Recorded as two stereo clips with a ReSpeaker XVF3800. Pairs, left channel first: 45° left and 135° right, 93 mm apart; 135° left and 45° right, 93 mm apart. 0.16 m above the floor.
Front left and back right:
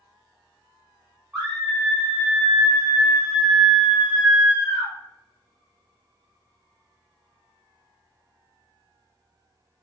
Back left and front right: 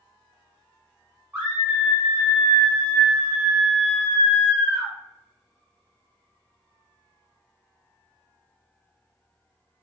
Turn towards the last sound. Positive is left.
turn(degrees=-80)